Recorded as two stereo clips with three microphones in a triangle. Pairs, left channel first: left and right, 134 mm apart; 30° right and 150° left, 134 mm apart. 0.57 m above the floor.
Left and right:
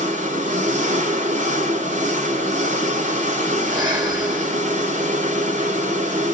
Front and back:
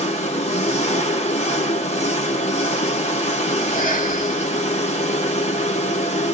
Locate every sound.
0.0 s an engine running: 65° right, 1.7 m
3.6 s breathing: 30° right, 2.5 m